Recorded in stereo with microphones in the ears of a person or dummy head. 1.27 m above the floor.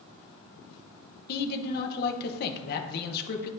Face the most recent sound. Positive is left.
turn(degrees=60)  # may be behind; listen again after turning